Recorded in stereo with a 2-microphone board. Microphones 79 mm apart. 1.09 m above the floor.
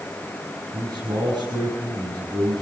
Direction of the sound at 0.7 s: 65° right (ahead or behind).